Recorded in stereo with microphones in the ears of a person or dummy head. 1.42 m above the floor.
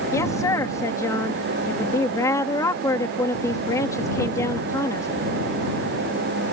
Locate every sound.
0.1 s a woman speaking: 15° left (ahead or behind)